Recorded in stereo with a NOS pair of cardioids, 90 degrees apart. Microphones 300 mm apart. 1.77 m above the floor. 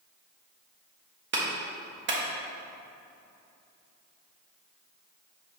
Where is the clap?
40° right, 1.4 m.